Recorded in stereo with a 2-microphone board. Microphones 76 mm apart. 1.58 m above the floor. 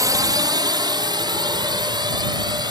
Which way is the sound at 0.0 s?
55° right (ahead or behind).